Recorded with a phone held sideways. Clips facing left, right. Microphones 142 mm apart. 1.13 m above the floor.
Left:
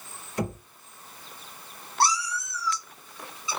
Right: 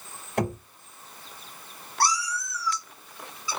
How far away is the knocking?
About 1.8 m.